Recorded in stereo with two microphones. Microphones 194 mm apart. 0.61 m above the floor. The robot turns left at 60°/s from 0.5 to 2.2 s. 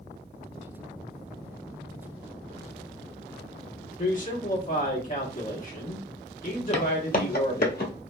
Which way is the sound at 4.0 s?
45° left (ahead or behind).